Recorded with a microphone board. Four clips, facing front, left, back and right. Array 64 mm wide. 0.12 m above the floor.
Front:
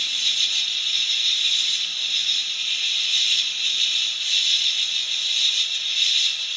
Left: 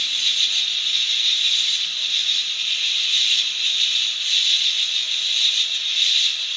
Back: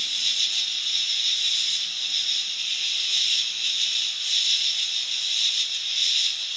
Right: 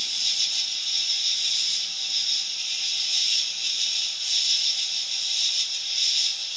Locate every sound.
0.0 s an insect: 70° left, 0.8 m